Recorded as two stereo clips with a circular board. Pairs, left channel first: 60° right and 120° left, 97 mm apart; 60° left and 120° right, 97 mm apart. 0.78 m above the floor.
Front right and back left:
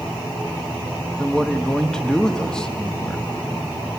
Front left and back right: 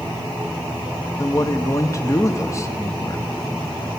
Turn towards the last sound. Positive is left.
turn(degrees=20)